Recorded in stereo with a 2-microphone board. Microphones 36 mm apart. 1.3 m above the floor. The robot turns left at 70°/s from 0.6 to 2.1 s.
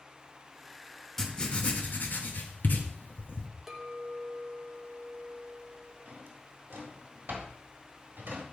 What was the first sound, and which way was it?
Writing, 10° left (ahead or behind).